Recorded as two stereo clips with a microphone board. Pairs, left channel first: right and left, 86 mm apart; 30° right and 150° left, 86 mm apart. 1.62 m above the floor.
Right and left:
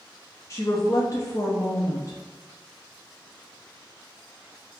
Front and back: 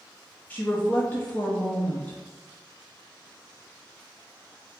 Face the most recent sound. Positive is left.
turn(degrees=-85)